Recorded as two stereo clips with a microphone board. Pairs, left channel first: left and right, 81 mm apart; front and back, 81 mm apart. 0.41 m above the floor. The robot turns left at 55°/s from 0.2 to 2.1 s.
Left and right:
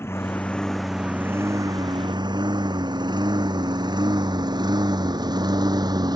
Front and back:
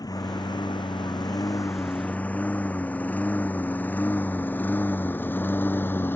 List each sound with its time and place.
0.0 s a lawn mower: 30° left; by 6.2 s 60° right